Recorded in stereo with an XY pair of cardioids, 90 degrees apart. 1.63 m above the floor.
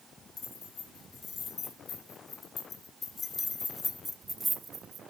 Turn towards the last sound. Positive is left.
turn(degrees=-80)